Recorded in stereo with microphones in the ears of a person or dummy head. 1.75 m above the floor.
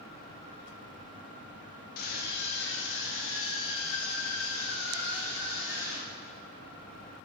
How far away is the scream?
About 2.5 m.